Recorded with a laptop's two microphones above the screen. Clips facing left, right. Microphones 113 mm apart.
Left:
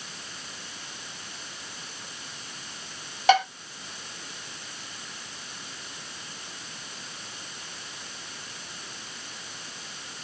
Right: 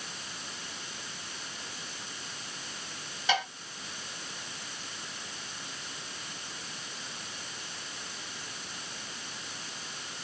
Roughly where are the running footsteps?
I don't hear running footsteps.